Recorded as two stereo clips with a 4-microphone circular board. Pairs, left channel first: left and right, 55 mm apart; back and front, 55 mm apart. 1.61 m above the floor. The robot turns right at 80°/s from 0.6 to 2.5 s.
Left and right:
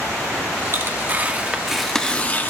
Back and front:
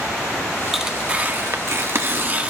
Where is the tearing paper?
85° right, 1.2 m; by 2.5 s 55° left, 1.2 m.